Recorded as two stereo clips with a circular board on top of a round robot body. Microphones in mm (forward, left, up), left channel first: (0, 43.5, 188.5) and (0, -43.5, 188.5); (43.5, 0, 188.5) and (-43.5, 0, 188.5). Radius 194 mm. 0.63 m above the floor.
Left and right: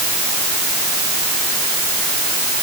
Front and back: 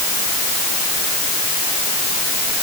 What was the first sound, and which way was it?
Only background noise.